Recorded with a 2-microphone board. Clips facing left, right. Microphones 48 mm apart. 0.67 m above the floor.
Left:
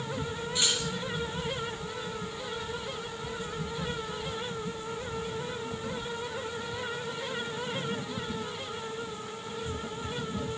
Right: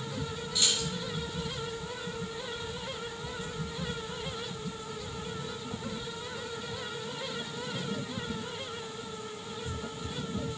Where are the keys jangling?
35° left (ahead or behind), 4.5 m.